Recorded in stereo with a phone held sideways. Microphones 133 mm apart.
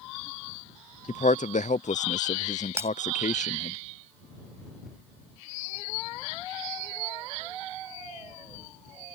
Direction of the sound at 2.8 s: 20° right (ahead or behind).